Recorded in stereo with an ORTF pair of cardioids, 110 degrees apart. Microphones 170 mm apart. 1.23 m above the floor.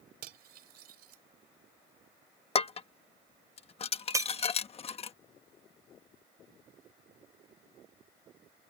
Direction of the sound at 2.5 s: 35° left.